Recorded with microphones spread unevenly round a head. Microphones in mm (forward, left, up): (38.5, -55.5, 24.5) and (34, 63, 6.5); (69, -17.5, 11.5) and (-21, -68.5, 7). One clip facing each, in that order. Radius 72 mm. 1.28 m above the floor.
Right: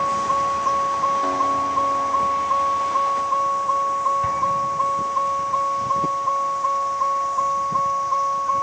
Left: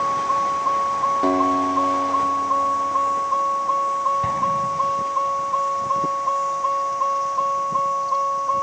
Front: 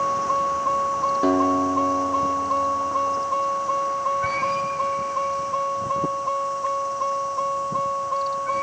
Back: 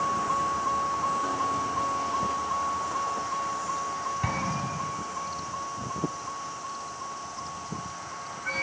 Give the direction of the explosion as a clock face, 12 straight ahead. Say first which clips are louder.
Even, front 7 dB; 7 o'clock.